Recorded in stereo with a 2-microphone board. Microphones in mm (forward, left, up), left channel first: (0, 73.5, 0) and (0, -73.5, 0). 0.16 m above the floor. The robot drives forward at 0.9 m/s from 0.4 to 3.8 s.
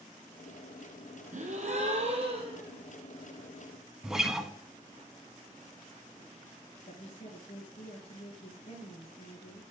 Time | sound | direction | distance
1.3 | a gasp | 55° right (ahead or behind) | 2 m
4.0 | a guitar | 5° right (ahead or behind) | 0.8 m
6.9 | a woman speaking | 45° left (ahead or behind) | 2.5 m